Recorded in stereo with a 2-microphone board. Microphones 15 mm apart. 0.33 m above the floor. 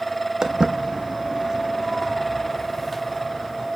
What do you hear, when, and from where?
0.4 s footsteps: 65° right (ahead or behind), 0.9 m; by 3.7 s 5° left (ahead or behind), 2.5 m